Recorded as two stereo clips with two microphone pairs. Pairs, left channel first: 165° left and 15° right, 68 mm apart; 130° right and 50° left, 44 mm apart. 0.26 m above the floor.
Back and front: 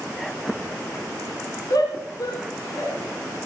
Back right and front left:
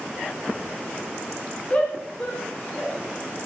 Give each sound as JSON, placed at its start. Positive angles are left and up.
{"t": 1.7, "sound": "a shout", "azimuth_deg": -165, "distance_m": 3.0}